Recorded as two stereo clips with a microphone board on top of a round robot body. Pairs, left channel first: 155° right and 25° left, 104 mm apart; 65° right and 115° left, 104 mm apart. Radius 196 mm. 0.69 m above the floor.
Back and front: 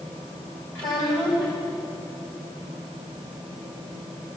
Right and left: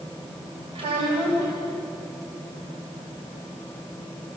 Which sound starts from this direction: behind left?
A child speaking, at 0.8 s.